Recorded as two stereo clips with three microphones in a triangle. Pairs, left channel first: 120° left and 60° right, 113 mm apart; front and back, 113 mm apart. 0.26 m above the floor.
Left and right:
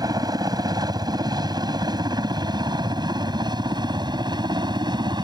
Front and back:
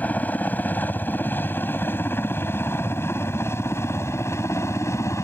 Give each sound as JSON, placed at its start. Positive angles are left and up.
{"t": 0.0, "sound": "a helicopter", "azimuth_deg": -65}